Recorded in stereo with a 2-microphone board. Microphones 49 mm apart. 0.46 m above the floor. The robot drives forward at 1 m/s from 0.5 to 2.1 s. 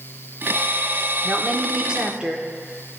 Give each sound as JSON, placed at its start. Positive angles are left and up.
{"t": 1.2, "sound": "a woman speaking", "side_deg": -20, "distance_m": 0.9}